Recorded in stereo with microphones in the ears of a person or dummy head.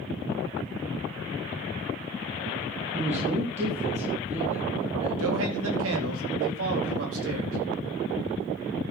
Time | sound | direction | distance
2.9 | a man speaking | 30° right (ahead or behind) | 3.5 m
5.2 | a man speaking | 90° right | 4 m